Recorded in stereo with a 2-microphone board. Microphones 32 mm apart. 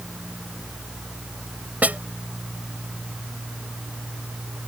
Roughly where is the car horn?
No car horn in this recording.